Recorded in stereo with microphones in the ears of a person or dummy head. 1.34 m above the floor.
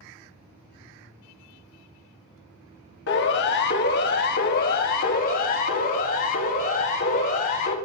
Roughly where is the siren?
Left.